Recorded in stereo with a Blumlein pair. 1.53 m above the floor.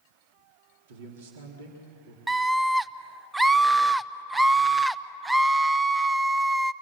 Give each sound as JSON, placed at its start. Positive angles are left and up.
{"t": 0.9, "sound": "a man speaking", "azimuth_deg": -55, "distance_m": 4.0}
{"t": 2.3, "sound": "a scream", "azimuth_deg": -10, "distance_m": 0.7}